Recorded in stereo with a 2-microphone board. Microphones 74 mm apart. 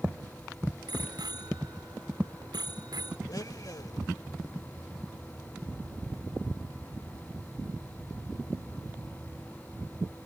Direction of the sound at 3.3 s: 55° left (ahead or behind).